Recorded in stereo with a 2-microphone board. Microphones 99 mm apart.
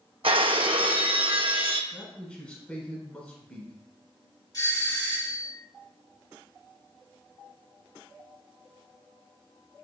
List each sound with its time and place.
0.2 s breaking glass: 65° right (ahead or behind), 0.6 m
1.9 s a man speaking: 10° left (ahead or behind), 1.1 m
4.5 s a doorbell: 40° left (ahead or behind), 1.9 m